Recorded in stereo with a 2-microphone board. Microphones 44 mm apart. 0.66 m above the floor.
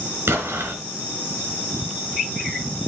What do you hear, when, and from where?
0.3 s an explosion: 75° right (ahead or behind), 3.5 m